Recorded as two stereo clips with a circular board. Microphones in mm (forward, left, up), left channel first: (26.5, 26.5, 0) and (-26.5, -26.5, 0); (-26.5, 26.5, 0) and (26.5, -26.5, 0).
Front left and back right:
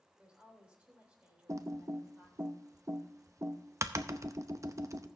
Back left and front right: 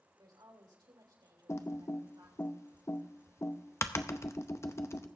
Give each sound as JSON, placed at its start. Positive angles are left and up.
{"t": 0.2, "sound": "a woman speaking", "azimuth_deg": -60, "distance_m": 3.0}
{"t": 1.5, "sound": "typing on a keyboard", "azimuth_deg": -175, "distance_m": 0.6}